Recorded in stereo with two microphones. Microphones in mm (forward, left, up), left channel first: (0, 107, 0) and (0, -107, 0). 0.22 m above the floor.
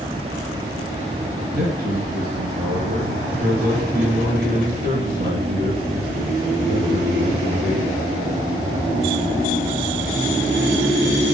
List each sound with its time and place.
1.5 s a man speaking: 45° right (ahead or behind), 2.5 m